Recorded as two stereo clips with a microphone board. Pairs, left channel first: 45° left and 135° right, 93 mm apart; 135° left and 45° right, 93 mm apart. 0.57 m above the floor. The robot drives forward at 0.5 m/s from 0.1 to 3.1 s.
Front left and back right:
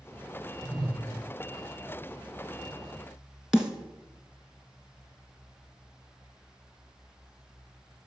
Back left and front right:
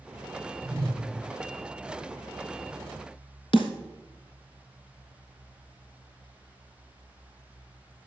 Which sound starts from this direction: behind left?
A snare drum, at 3.5 s.